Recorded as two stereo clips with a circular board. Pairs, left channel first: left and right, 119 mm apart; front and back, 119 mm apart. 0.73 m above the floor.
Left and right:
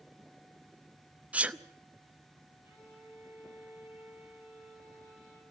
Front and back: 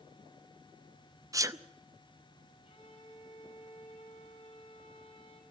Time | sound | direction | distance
1.3 | a sneeze | 155° right | 0.7 m
2.6 | a violin | 20° right | 5 m